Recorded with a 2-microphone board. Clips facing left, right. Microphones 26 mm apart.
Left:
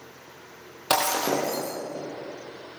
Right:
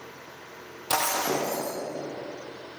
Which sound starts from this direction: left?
Breaking glass, at 0.9 s.